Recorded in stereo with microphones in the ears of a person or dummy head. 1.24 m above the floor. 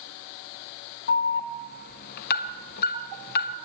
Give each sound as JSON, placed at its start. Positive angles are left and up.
{"t": 1.1, "sound": "an alarm", "side_deg": 50, "distance_m": 1.4}